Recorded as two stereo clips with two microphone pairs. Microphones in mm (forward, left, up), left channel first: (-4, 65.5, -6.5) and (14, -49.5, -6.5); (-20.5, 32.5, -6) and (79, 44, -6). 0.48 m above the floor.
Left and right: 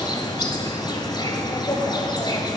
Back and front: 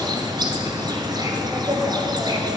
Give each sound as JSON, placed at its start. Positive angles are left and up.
{"t": 0.0, "sound": "an insect", "azimuth_deg": 50, "distance_m": 1.0}